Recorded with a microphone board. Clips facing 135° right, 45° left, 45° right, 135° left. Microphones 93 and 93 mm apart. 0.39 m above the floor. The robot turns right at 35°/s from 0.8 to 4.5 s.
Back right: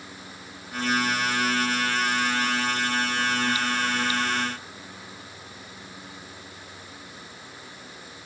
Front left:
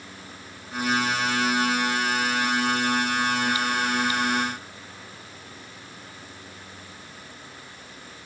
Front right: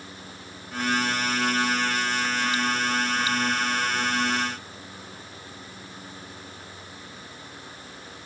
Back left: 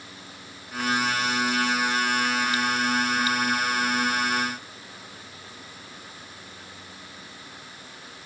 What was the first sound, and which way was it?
Only background noise.